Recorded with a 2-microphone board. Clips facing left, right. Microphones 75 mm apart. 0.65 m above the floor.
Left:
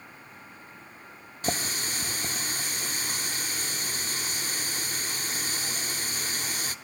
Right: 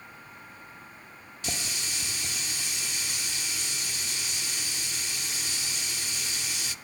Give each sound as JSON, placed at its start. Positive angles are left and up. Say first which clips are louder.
{"t": 1.4, "sound": "a running tap", "louder": "left 6 dB", "side_deg": 45, "distance_m": 0.9}